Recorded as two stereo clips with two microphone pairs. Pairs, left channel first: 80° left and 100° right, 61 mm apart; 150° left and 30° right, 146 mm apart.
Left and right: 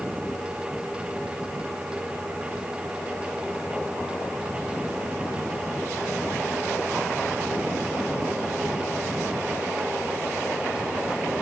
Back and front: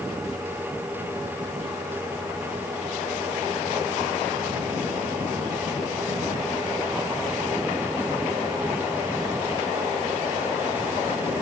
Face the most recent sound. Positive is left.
No sound to turn to.